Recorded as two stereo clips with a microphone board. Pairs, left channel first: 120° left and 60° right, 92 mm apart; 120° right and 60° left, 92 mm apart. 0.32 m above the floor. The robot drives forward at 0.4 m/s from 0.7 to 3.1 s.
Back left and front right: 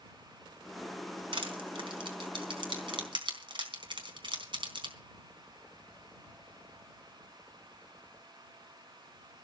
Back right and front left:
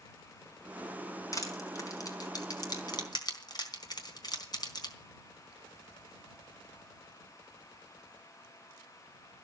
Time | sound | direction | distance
1.3 | crushing | 70° right | 4 m